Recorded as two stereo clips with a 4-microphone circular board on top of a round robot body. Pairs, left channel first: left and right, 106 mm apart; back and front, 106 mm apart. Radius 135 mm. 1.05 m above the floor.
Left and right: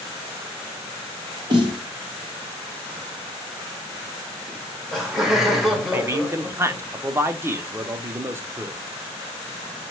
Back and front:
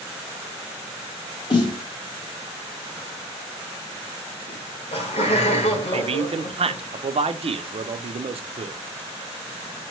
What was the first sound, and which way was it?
A snare drum, 135° right.